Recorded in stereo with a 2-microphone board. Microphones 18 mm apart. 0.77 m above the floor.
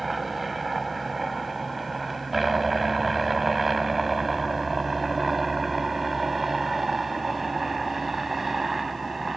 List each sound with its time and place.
0.0 s a helicopter: 5° right (ahead or behind); by 9.4 s 10° right (ahead or behind)